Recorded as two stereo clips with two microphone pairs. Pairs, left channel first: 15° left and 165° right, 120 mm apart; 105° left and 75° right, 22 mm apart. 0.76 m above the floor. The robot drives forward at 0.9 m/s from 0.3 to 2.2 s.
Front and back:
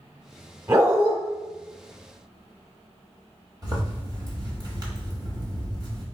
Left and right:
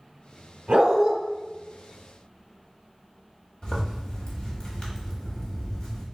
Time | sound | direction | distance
0.7 | a dog barking | 100° right | 1.2 m
3.6 | a zipper | 145° left | 1.2 m